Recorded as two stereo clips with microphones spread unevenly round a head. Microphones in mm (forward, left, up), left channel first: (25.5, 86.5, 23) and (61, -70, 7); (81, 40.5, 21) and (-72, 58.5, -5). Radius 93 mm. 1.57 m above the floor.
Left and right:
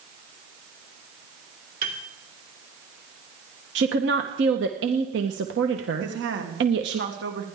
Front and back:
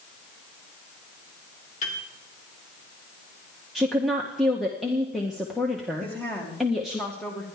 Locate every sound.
1.8 s a piano: 50° right, 2.5 m
3.8 s a woman speaking: 95° right, 1.0 m
6.0 s a woman speaking: 90° right, 2.5 m